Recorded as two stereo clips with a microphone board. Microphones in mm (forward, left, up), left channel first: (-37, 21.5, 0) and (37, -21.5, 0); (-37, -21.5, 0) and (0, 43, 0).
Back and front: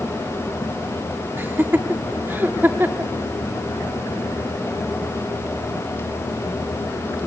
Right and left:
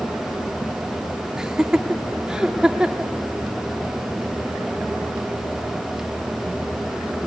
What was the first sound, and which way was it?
Laughter, 5° right.